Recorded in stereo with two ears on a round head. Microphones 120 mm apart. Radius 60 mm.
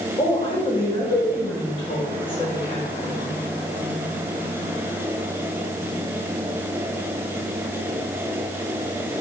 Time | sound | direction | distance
0.2 | a woman speaking | 40° left (ahead or behind) | 4 m